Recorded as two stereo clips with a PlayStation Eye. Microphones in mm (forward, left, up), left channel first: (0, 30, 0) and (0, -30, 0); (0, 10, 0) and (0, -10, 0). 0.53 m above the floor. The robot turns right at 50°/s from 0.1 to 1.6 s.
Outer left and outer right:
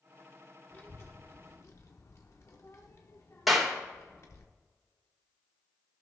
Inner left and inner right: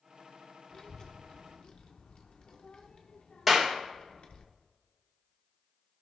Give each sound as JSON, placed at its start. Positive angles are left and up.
{"t": 0.7, "sound": "a child speaking", "side_deg": 30, "distance_m": 0.6}
{"t": 3.5, "sound": "a clap", "side_deg": 0, "distance_m": 1.5}